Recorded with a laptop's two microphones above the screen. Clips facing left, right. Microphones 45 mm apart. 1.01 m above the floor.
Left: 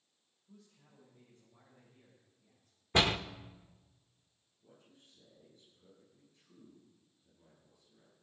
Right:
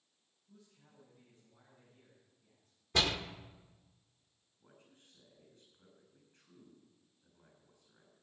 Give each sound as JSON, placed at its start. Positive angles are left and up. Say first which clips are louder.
{"t": 0.5, "sound": "a man speaking", "louder": "left 2 dB", "side_deg": 50, "distance_m": 6.5}
{"t": 2.9, "sound": "a door slam", "louder": "left 3 dB", "side_deg": 30, "distance_m": 0.8}
{"t": 4.6, "sound": "a man speaking", "louder": "left 1 dB", "side_deg": -50, "distance_m": 7.5}